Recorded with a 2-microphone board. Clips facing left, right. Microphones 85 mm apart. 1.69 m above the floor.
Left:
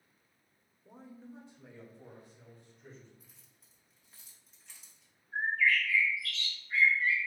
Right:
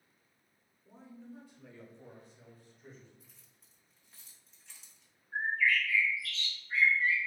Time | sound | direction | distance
0.8 | a man speaking | 55° left (ahead or behind) | 0.7 m
3.2 | keys jangling | 5° left (ahead or behind) | 0.8 m
5.3 | a bird | 40° right (ahead or behind) | 1.3 m